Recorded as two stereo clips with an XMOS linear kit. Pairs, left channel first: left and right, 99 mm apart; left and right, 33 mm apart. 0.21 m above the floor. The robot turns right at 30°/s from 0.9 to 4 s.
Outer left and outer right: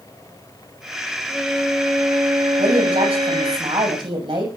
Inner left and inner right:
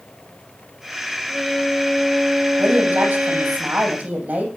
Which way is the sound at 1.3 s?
170° right.